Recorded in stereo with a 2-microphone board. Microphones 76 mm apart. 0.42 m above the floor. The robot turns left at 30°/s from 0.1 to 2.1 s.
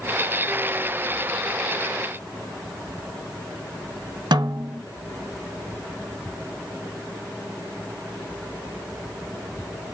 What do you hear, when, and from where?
4.3 s a snare drum: 85° right, 0.7 m